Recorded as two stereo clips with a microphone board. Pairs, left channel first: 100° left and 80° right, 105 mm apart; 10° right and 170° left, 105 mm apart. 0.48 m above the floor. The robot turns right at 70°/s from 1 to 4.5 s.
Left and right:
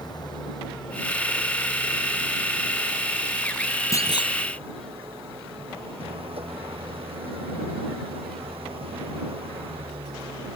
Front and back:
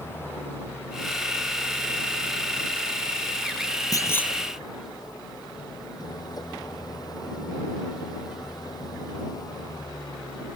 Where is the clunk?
40° left; by 4.3 s 70° left.